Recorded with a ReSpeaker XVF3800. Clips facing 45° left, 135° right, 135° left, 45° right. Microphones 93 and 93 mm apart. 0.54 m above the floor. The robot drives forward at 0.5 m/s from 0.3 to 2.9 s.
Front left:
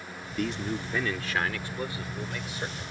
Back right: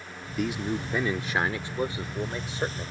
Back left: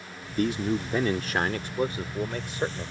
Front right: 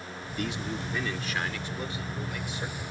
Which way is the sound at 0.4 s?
145° left.